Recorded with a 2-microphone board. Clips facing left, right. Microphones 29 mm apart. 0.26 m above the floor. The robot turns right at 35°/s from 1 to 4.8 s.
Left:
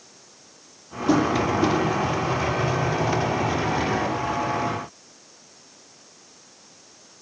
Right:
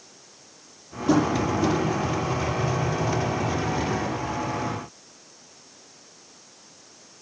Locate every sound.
1.1 s tapping: centre (ahead or behind), 7.5 m; by 1.8 s 25° left (ahead or behind), 7.5 m